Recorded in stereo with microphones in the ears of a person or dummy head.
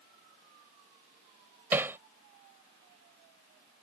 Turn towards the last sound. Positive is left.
turn(degrees=-10)  # may be behind; listen again after turning